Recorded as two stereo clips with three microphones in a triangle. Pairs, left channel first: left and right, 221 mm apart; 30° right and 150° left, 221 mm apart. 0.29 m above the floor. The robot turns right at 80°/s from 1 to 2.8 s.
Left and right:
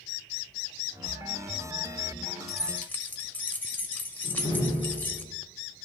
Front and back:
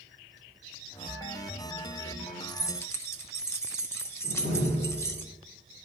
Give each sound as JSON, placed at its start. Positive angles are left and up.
{"t": 2.5, "sound": "keys jangling", "azimuth_deg": -5, "distance_m": 0.6}
{"t": 4.2, "sound": "a door slam", "azimuth_deg": 20, "distance_m": 1.9}